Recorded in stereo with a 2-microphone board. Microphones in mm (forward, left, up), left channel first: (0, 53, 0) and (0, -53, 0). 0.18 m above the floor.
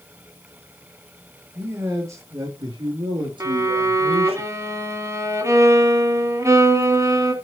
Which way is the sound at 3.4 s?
30° right (ahead or behind).